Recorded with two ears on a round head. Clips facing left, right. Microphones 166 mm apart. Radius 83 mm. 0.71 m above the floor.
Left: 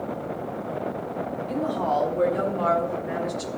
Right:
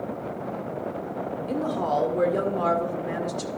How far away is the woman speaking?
About 1.9 m.